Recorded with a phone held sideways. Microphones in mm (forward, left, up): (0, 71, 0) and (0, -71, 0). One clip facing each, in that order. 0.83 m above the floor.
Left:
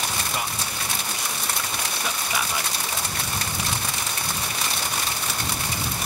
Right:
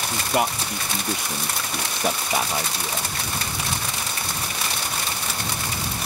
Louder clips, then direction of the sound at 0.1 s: Right 7 dB; 65° right (ahead or behind).